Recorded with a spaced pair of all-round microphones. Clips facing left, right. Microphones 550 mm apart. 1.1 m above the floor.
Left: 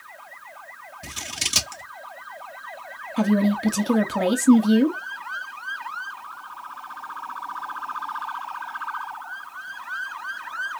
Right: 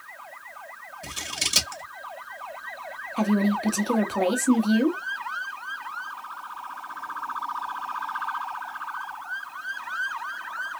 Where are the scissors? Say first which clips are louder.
Even; 20° left (ahead or behind), 0.7 m.